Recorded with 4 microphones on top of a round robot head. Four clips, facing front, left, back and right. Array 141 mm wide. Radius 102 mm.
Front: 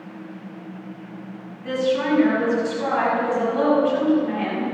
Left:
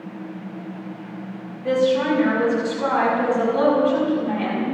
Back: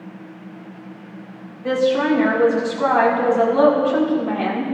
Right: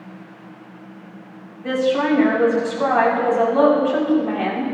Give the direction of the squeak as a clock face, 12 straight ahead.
I don't hear a squeak.